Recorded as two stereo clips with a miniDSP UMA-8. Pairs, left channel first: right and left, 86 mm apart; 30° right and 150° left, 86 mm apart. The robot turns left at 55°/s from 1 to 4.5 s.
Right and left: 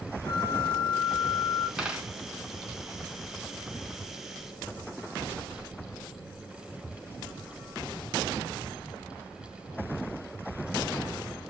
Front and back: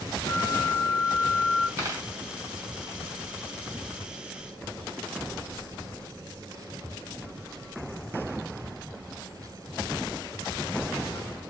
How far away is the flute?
About 0.7 m.